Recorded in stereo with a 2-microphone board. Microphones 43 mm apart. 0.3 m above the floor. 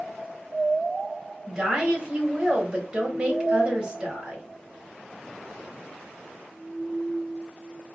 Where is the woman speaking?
20° right (ahead or behind), 1.3 m.